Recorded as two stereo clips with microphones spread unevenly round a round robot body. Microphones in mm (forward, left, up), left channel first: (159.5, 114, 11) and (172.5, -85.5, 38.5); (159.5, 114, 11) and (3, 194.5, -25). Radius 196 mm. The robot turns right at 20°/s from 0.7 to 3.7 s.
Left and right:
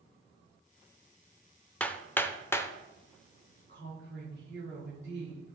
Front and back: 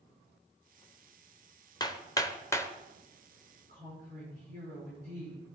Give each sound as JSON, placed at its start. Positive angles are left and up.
{"t": 1.8, "sound": "hammering", "azimuth_deg": 35, "distance_m": 0.8}
{"t": 3.7, "sound": "a woman speaking", "azimuth_deg": -145, "distance_m": 4.0}